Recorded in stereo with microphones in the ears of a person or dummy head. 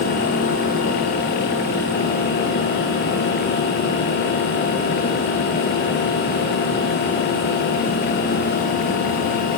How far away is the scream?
I don't hear a scream.